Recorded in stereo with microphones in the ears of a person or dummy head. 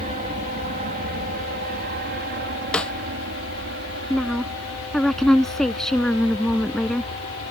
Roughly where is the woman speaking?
Centre.